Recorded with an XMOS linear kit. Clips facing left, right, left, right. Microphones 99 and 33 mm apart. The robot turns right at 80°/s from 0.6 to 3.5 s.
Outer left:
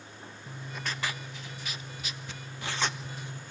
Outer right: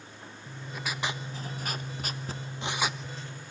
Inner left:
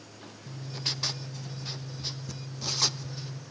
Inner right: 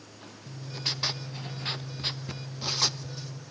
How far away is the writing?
About 0.6 m.